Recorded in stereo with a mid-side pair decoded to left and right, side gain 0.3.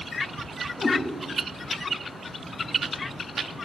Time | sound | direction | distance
0.8 | a cat meowing | 65° left | 3.5 m